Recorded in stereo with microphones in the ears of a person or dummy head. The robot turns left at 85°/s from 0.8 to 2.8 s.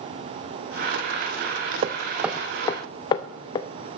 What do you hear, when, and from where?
1.8 s hammering: 35° right (ahead or behind), 0.5 m; by 3.7 s 30° left (ahead or behind), 0.5 m